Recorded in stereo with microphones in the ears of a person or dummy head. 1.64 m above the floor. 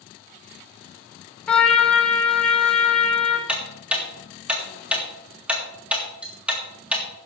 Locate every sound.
1.5 s a trumpet: 10° left (ahead or behind), 1.7 m
3.5 s ticking: 5° right (ahead or behind), 1.8 m